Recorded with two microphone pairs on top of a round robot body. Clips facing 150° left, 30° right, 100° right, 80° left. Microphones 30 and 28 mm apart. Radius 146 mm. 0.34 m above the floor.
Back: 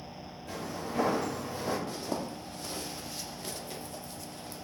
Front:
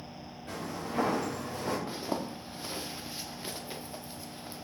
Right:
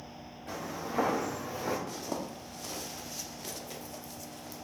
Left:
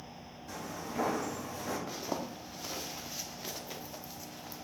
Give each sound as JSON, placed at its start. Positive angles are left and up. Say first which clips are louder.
{"t": 0.5, "sound": "footsteps", "louder": "even, right 3 dB", "azimuth_deg": -75, "distance_m": 2.5}
{"t": 1.9, "sound": "a zipper", "louder": "even, even", "azimuth_deg": 20, "distance_m": 0.9}